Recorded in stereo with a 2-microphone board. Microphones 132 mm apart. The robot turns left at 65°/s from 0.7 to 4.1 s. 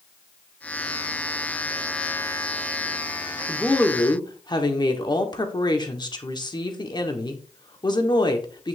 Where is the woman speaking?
175° right, 1.3 m; by 8.8 s 145° left, 1.3 m.